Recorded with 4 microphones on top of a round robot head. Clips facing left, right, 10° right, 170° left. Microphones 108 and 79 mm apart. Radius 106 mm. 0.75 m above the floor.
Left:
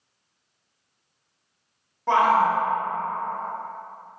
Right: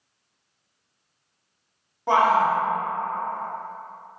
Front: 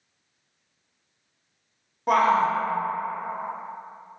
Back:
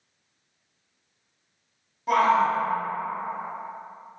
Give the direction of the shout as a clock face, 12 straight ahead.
1 o'clock.